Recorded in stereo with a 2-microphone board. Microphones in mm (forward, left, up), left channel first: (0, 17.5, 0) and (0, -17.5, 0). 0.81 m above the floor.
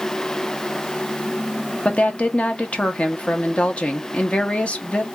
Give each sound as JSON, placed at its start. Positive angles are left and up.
{"t": 1.9, "sound": "a woman speaking", "side_deg": 35, "distance_m": 0.6}